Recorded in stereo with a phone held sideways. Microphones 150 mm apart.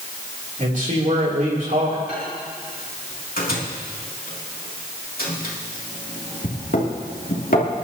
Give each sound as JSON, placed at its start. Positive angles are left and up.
{"t": 0.6, "sound": "a man speaking", "side_deg": -60, "distance_m": 3.0}
{"t": 2.1, "sound": "a microwave", "side_deg": 85, "distance_m": 2.5}